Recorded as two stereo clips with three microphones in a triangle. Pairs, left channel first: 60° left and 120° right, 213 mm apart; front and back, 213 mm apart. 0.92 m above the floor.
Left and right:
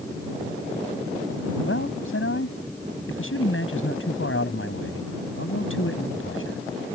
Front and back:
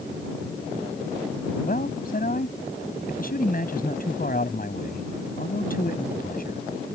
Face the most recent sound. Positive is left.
turn(degrees=45)